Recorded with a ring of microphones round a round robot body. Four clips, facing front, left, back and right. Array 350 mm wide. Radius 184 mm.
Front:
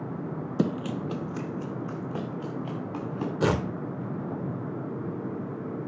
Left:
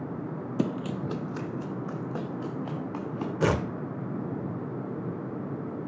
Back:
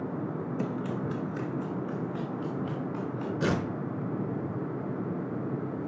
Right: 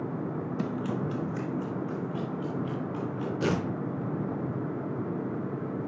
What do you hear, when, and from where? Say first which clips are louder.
0.6 s running footsteps: left 3 dB, front 7 dB; 25° left, 0.5 m; by 3.3 s 40° left, 4 m
3.4 s tearing paper: left 3 dB, front 4 dB; 45° left, 1.4 m